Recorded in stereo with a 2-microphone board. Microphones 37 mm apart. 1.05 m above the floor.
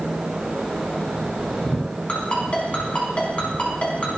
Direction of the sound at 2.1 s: 35° left (ahead or behind).